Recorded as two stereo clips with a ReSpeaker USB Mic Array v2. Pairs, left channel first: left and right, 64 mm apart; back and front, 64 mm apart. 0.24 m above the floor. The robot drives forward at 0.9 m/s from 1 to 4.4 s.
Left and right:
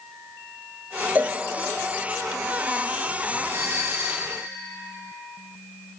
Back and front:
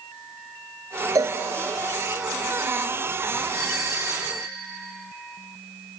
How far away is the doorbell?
About 5 m.